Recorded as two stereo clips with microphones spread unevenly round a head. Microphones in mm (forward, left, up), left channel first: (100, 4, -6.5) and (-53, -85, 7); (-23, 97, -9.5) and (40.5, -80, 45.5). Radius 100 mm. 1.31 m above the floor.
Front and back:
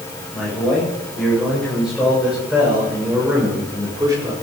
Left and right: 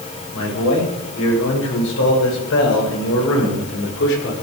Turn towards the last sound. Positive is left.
turn(degrees=140)